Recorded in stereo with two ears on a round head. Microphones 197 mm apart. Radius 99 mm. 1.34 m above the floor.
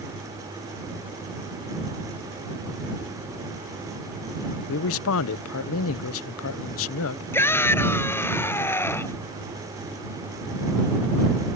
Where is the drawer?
I don't hear a drawer.